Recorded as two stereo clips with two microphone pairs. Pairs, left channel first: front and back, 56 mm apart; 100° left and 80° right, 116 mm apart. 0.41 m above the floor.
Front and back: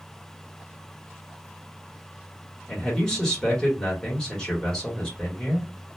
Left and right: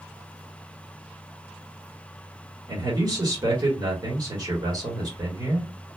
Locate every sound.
2.7 s a man speaking: 70° right, 1.3 m